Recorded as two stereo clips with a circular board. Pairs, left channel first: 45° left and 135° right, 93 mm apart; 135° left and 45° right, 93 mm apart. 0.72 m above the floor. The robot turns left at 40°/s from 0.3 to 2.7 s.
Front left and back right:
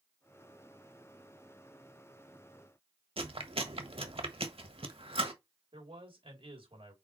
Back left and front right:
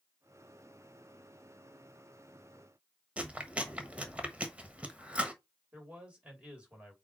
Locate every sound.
3.2 s chewing: 120° right, 1.2 m
5.7 s a man speaking: 120° right, 3 m